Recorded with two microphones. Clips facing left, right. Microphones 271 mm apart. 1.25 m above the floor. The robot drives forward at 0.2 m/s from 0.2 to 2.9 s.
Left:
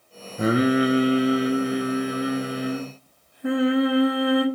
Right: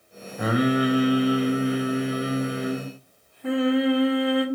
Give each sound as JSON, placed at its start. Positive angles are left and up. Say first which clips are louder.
{"t": 0.4, "sound": "singing", "louder": "left 2 dB", "side_deg": 30, "distance_m": 0.5}